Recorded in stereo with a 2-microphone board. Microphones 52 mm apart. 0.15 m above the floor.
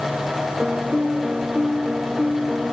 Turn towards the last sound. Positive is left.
turn(degrees=-20)  # may be behind; listen again after turning